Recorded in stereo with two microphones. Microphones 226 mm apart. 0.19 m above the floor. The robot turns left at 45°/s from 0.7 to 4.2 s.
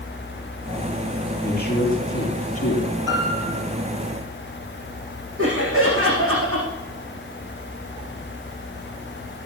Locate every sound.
1.4 s a man speaking: 145° left, 5.5 m; by 2.9 s 75° left, 5.5 m
3.1 s a piano: 50° right (ahead or behind), 4 m; by 3.6 s 70° right (ahead or behind), 4 m
5.4 s laughter: 65° right (ahead or behind), 8.5 m